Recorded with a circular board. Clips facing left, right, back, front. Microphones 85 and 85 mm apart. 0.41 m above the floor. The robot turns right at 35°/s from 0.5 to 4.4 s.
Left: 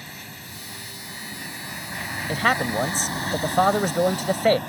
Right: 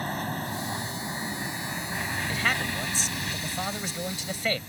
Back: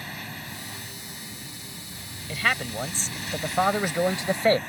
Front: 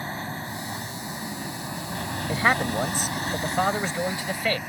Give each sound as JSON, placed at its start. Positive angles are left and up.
{"t": 0.0, "sound": "an aircraft", "azimuth_deg": -55}
{"t": 2.3, "sound": "a man speaking", "azimuth_deg": 50}